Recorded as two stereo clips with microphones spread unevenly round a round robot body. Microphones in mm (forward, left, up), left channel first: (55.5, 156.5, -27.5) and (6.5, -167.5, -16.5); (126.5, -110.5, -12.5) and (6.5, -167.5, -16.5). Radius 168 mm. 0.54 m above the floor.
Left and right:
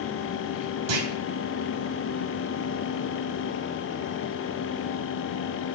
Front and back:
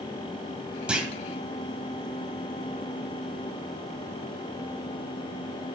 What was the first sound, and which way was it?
A clunk, 70° right.